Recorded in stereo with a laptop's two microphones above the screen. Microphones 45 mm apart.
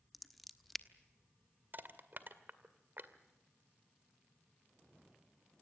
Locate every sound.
0.1 s scissors: centre (ahead or behind), 1.1 m
1.7 s crushing: 50° right (ahead or behind), 1.9 m